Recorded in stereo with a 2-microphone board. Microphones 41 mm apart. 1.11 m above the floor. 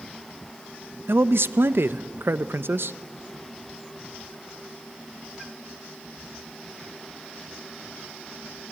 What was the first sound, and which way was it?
A man speaking, 70° right (ahead or behind).